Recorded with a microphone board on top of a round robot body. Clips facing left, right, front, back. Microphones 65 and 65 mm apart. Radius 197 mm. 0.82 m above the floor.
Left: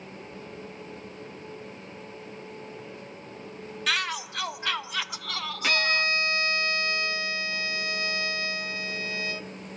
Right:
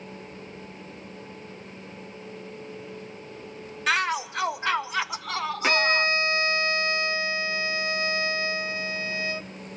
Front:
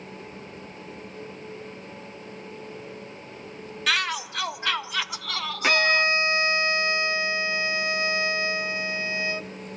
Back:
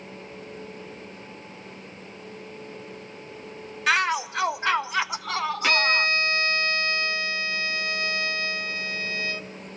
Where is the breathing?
I don't hear breathing.